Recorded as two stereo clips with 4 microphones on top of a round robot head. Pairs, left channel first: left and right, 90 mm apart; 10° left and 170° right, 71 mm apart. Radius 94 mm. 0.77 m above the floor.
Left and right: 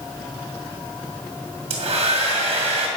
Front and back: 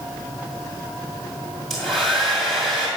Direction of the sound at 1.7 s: 80° right.